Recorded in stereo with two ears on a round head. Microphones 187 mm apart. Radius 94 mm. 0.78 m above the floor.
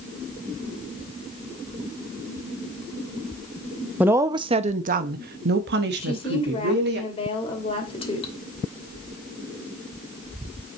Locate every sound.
4.0 s a woman speaking: 5° right (ahead or behind), 0.7 m; by 7.0 s 55° right (ahead or behind), 1.6 m
6.0 s a woman speaking: 30° left (ahead or behind), 2.5 m